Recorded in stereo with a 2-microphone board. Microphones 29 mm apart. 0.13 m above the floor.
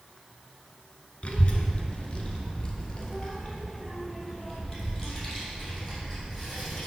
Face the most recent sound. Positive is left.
turn(degrees=5)  # may be behind; listen again after turning